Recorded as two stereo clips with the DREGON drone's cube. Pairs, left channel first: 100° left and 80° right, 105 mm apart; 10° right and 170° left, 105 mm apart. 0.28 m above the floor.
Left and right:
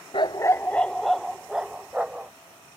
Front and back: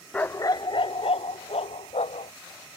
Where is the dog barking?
65° left; by 2.3 s straight ahead.